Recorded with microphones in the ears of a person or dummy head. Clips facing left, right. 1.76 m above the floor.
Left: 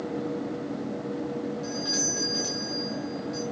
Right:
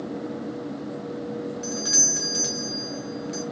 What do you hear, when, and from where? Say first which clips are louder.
1.6 s a doorbell: even; 45° right (ahead or behind), 1.1 m